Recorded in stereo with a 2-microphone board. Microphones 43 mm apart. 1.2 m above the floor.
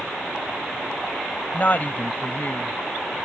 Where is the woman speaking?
35° left (ahead or behind); by 2.8 s 45° left (ahead or behind).